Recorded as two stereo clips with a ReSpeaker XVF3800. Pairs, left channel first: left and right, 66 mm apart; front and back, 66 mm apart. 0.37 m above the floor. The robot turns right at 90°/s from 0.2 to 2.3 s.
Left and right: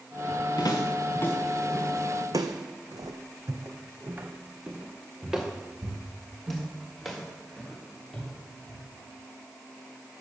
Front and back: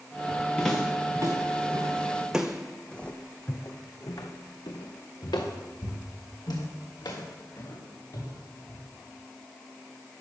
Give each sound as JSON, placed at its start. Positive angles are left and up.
{"t": 0.6, "sound": "footsteps", "azimuth_deg": 75, "distance_m": 2.5}